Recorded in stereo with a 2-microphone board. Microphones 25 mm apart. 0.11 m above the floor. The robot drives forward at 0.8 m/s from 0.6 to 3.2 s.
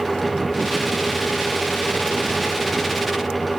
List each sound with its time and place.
Only background noise.